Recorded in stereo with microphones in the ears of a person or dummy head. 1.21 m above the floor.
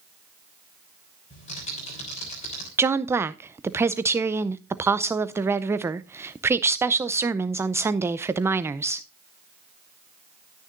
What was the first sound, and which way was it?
Typing on a keyboard, 35° left (ahead or behind).